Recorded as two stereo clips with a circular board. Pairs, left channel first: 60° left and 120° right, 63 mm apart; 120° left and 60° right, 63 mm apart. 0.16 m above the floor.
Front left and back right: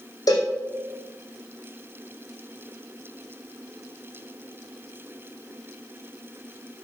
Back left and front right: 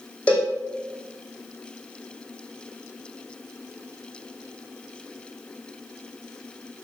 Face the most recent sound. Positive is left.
turn(degrees=45)